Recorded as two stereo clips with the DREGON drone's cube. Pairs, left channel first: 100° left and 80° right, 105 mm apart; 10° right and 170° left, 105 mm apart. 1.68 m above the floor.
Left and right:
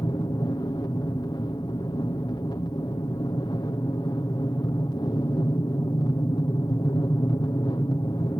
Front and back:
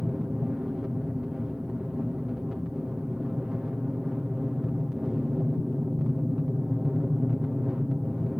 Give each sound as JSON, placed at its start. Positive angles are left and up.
{"t": 0.0, "sound": "an aircraft", "azimuth_deg": 90}